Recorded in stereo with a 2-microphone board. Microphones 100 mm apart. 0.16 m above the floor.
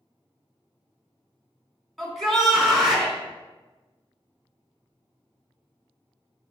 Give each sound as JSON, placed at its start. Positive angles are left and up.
{"t": 2.0, "sound": "a shout", "side_deg": 0, "distance_m": 1.3}